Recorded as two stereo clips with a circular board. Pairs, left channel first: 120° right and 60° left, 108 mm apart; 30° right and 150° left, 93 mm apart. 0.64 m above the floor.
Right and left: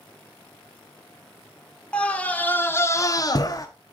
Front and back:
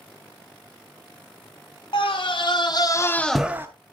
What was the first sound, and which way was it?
A scream, 45° right.